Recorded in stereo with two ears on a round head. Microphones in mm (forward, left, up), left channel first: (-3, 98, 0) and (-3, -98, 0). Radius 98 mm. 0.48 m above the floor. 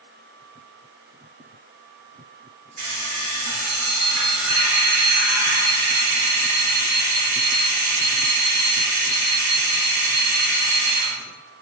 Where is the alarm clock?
80° right, 5.5 m.